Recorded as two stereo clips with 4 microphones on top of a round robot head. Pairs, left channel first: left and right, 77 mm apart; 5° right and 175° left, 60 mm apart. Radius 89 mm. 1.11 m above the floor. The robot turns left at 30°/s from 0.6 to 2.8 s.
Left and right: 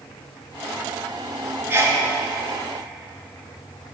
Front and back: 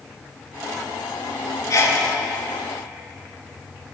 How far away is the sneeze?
About 0.9 m.